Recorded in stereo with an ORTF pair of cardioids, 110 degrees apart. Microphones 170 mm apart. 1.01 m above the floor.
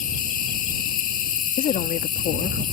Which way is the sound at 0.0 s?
55° left.